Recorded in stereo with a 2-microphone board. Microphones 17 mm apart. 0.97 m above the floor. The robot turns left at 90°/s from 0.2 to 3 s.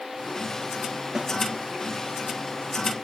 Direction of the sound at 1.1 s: 35° right (ahead or behind).